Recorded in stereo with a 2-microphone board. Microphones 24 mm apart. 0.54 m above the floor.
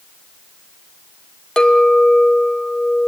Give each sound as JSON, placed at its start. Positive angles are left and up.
{"t": 1.6, "sound": "a clink", "side_deg": 35, "distance_m": 1.7}